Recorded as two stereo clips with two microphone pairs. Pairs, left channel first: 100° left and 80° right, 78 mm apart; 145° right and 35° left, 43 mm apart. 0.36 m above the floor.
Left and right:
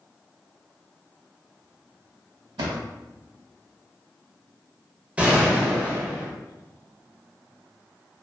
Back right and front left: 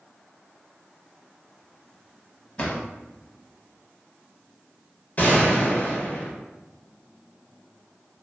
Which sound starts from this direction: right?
A drawer, at 2.6 s.